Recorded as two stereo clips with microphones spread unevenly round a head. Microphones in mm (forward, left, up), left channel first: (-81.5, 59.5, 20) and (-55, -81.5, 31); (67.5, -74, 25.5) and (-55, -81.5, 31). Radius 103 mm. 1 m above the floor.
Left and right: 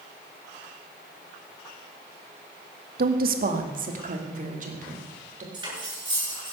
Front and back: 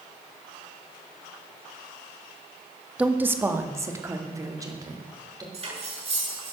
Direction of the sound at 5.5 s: 140° right.